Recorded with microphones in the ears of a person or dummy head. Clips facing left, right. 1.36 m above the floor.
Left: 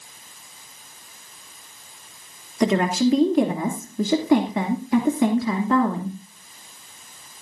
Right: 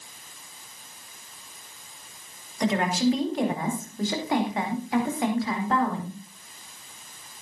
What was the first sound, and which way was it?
A woman speaking, 60° left (ahead or behind).